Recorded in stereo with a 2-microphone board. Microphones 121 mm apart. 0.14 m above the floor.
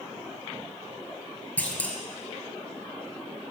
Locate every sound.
1.6 s a clunk: 15° left (ahead or behind), 0.9 m